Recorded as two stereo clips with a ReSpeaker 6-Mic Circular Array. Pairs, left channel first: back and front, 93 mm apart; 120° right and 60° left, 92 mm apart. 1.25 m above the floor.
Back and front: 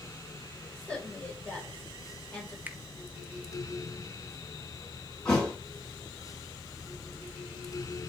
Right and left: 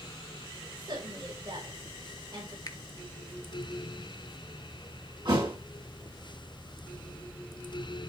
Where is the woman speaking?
100° left, 5.5 m.